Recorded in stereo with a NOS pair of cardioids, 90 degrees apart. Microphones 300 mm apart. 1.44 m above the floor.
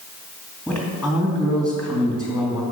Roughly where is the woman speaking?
Ahead.